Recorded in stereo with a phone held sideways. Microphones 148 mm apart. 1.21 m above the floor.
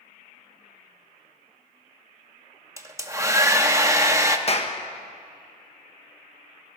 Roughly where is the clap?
Left.